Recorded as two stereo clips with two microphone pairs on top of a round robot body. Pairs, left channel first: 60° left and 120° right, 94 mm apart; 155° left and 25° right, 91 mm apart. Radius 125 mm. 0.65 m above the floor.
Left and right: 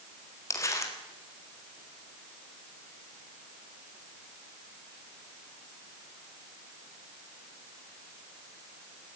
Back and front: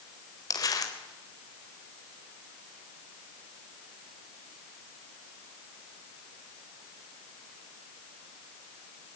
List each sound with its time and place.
0.5 s crumpling: 115° left, 4 m